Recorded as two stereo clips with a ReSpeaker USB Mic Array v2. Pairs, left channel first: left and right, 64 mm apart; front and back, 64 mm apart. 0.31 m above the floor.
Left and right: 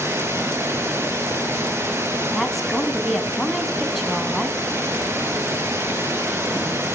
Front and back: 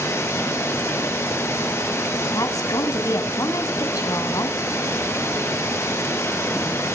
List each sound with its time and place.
0.0 s running water: 40° right, 4.5 m
2.3 s a woman speaking: straight ahead, 2.5 m